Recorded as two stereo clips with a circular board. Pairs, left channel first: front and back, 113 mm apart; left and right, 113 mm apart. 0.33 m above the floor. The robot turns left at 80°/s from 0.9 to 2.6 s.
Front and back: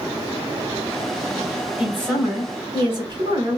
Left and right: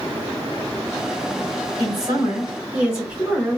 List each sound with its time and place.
1.8 s a woman speaking: 100° right, 1.7 m; by 3.6 s 165° right, 1.7 m